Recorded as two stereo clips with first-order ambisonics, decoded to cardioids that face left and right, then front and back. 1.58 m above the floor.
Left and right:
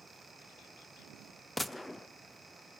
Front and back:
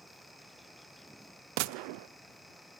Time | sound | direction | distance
1.6 | a gunshot | straight behind | 0.6 m